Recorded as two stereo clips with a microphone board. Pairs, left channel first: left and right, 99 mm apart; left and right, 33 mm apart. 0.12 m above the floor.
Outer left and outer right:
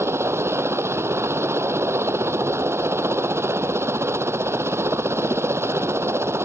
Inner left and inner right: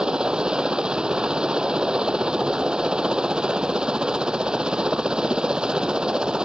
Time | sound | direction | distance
0.0 | a helicopter | 25° right (ahead or behind) | ?